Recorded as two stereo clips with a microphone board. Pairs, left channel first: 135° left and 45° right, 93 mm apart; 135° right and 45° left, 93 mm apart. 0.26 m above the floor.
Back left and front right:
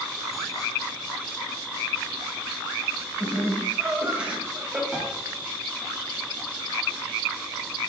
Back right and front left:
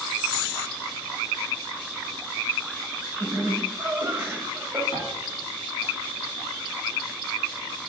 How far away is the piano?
About 3.5 m.